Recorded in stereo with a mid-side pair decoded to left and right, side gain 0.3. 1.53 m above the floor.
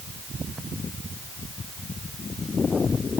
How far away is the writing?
I don't hear writing.